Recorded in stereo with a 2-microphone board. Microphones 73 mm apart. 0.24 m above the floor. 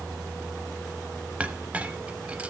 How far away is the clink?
About 0.7 m.